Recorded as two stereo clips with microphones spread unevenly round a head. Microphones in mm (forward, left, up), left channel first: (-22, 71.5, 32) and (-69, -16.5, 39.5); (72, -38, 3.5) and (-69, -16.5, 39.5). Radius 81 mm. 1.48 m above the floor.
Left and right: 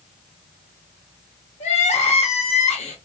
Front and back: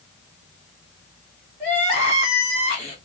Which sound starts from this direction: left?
Crying, at 1.6 s.